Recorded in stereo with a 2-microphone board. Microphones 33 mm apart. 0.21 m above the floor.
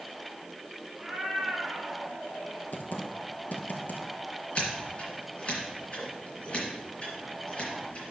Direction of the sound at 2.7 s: 65° left (ahead or behind).